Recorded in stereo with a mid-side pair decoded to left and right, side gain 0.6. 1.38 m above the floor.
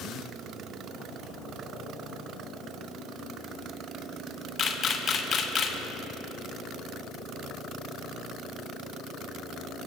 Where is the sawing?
I don't hear sawing.